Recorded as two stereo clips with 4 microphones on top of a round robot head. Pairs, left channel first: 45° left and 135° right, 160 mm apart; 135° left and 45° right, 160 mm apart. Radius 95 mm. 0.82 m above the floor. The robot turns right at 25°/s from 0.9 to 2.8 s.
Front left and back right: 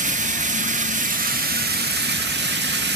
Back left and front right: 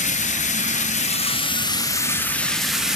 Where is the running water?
Straight behind, 1.1 m; by 3.0 s 130° right, 1.1 m.